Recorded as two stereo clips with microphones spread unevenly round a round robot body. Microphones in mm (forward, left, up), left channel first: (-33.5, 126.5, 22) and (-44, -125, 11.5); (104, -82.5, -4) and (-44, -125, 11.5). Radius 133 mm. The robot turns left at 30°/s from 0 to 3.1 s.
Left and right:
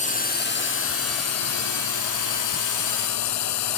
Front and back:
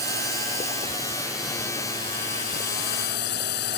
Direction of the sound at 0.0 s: 150° left.